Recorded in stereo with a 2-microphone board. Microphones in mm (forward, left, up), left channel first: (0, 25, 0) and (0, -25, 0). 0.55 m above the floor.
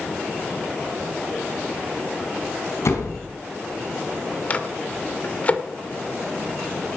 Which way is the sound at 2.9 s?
80° left.